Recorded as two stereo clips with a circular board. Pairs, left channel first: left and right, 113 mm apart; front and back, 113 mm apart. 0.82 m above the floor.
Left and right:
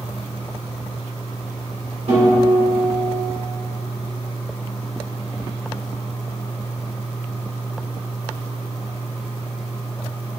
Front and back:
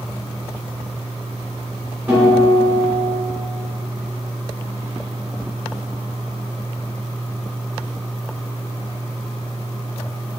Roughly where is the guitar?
Right.